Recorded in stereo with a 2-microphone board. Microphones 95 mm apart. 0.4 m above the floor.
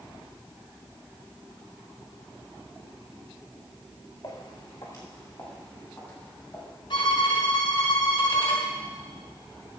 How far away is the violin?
About 2.5 m.